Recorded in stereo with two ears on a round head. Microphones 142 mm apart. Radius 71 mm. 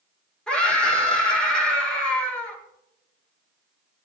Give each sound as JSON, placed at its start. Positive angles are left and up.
{"t": 0.5, "sound": "a scream", "side_deg": 5, "distance_m": 7.0}